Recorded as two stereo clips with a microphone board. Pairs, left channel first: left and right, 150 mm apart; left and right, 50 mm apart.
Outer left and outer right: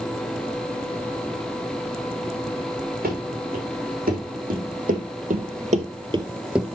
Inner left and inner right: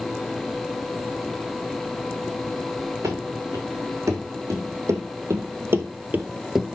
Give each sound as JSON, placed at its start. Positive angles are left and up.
{"t": 3.0, "sound": "running footsteps", "side_deg": -80, "distance_m": 4.0}